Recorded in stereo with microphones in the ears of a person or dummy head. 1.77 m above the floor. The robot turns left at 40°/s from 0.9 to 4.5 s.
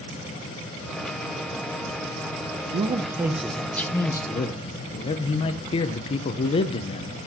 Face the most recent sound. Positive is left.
turn(degrees=140)